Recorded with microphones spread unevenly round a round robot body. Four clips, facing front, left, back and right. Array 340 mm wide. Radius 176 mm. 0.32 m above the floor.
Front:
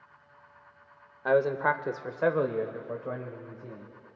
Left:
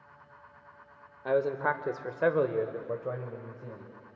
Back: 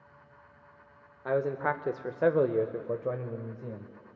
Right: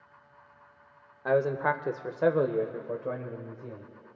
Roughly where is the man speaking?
Ahead.